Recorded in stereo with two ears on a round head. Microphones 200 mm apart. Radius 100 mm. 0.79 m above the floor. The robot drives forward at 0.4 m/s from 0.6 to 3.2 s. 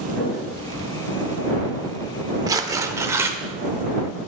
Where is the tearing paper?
15° right (ahead or behind), 0.9 m.